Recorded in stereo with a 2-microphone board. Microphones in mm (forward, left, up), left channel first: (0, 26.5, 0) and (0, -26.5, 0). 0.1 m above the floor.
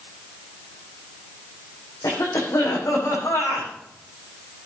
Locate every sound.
2.0 s a cough: 75° left (ahead or behind), 7 m